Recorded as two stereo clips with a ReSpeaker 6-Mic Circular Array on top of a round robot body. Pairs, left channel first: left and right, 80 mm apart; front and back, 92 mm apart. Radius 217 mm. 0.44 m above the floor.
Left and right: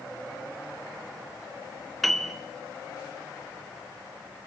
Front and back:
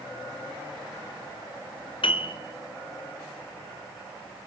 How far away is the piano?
About 3 m.